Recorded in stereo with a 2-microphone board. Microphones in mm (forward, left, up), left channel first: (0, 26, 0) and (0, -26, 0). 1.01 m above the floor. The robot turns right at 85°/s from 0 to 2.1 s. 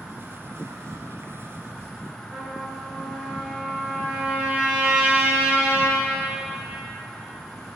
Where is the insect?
165° right, 0.9 m; by 7.8 s 15° left, 0.9 m.